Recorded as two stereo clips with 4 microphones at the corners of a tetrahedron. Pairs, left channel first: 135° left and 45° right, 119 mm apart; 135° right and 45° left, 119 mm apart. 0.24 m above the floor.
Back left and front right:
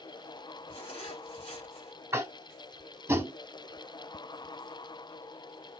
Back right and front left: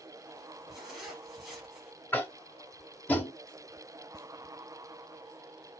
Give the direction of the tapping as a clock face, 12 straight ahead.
3 o'clock.